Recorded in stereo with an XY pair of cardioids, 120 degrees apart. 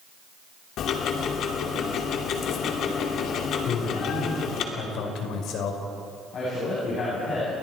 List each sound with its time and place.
0.8 s ticking: 65° left, 2.5 m
3.6 s a man speaking: 70° left, 4.5 m
6.3 s a man speaking: 45° left, 9 m